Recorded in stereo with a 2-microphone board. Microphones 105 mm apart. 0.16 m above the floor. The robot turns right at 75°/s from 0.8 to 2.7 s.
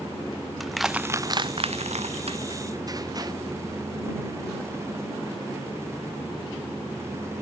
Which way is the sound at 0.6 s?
Centre (ahead or behind).